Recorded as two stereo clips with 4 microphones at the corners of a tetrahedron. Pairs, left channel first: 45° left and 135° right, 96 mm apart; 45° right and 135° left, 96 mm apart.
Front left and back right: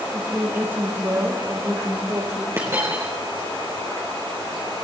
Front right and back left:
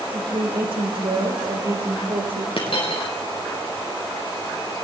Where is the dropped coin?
70° right, 5 m.